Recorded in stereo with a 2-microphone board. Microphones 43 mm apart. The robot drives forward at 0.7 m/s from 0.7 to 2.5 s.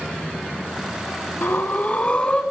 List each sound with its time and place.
1.4 s breathing: 65° left (ahead or behind), 0.5 m; by 2.4 s 25° left (ahead or behind), 1.0 m